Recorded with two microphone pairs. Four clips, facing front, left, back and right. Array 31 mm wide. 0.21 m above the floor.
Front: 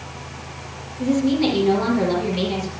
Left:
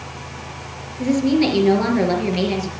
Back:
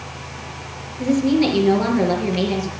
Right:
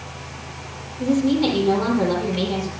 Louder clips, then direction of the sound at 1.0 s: Left 2 dB, back 2 dB; 105° left.